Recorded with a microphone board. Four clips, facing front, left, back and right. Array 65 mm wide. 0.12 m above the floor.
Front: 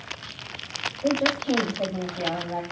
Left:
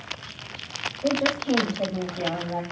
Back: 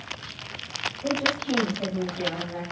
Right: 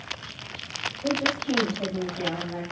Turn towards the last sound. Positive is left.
turn(degrees=60)